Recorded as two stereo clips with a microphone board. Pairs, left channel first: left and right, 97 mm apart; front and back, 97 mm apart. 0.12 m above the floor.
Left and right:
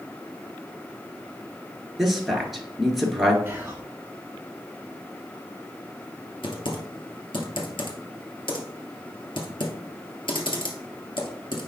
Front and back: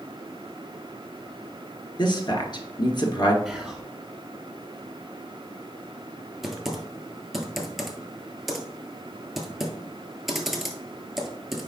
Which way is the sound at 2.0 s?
Straight ahead.